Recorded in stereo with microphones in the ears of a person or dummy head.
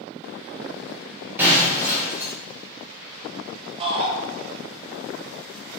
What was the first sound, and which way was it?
Breaking glass, 15° right (ahead or behind).